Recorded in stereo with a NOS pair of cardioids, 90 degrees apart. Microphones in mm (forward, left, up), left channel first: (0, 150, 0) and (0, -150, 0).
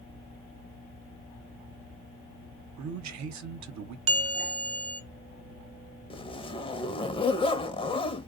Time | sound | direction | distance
2.8 | a man speaking | 65° right | 0.9 m
4.1 | a bell | 50° right | 1.0 m
6.1 | a zipper | 20° left | 0.7 m